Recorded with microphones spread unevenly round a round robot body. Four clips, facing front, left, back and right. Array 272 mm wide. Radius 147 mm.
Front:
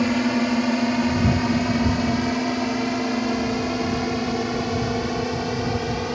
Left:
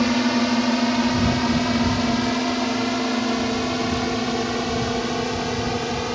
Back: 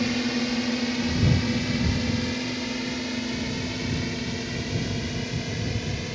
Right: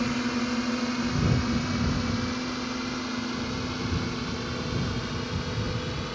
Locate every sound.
0.0 s a drone: 50° left; by 6.2 s 45° left